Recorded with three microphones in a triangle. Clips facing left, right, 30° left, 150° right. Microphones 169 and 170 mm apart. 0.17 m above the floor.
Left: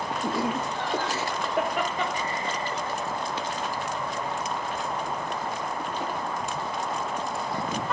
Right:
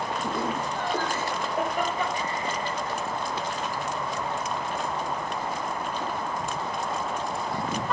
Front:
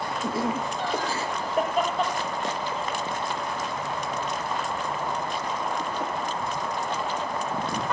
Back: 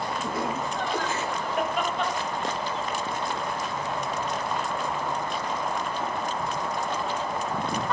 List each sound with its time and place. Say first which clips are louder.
0.2 s laughter: left 4 dB, front 5 dB; 90° left, 6 m; by 6.1 s 65° left, 8 m